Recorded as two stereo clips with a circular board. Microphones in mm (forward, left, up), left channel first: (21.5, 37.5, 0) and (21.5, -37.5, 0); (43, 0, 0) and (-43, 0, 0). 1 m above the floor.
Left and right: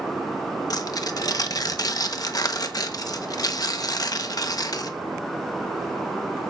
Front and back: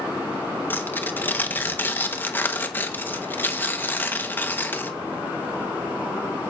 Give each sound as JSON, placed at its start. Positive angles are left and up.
{"t": 0.7, "sound": "tearing paper", "azimuth_deg": 65, "distance_m": 1.2}